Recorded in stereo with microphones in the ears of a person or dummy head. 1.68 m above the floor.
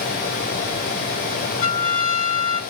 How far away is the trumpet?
About 5.5 m.